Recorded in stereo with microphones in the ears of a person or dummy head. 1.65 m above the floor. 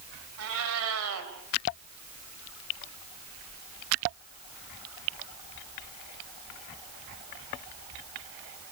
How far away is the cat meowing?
About 4 m.